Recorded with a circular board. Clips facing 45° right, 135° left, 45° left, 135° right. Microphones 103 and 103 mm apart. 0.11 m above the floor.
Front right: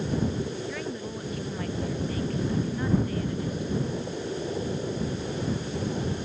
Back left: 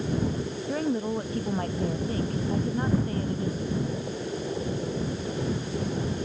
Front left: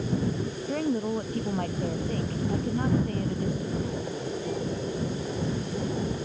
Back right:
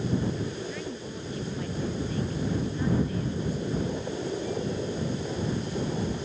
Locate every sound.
0.7 s a woman speaking: 85° left